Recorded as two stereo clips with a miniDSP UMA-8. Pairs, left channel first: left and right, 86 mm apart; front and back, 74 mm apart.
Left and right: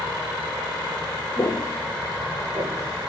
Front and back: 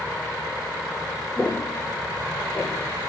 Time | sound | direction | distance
1.4 | footsteps | 60° left | 1.1 m